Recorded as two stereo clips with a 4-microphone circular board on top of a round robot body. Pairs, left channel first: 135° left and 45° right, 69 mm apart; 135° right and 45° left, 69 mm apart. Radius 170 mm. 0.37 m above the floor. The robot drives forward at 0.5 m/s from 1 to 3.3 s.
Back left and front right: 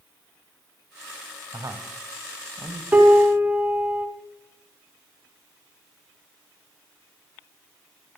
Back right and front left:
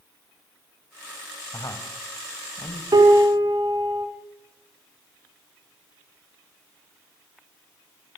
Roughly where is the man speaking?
Right.